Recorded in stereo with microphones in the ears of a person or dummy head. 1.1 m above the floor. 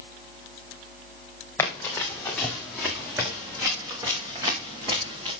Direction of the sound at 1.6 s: 15° left (ahead or behind).